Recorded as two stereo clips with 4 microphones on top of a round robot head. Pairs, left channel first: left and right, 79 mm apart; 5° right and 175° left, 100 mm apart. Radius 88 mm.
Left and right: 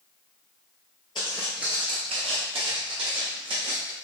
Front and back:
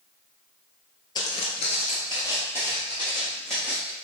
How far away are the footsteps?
About 0.7 m.